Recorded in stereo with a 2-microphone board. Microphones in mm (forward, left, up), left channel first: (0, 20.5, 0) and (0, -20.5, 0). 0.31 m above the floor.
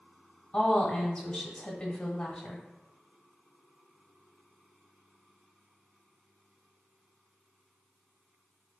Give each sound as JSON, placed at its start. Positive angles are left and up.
{"t": 0.5, "sound": "a woman speaking", "side_deg": 25, "distance_m": 1.0}